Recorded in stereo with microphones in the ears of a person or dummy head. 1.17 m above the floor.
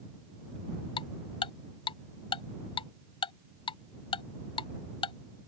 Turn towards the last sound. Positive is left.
turn(degrees=25)  # may be behind; listen again after turning